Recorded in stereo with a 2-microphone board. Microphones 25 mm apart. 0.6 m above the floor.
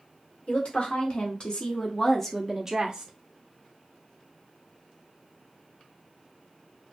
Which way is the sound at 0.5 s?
55° left (ahead or behind).